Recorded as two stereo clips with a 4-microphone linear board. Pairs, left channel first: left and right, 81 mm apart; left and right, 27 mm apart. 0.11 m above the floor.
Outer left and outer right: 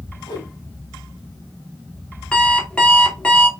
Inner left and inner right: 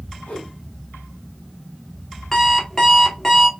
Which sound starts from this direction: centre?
An alarm clock, at 2.3 s.